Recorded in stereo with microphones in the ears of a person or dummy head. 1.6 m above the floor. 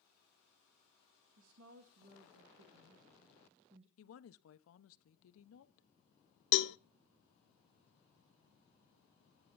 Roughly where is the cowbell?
Left.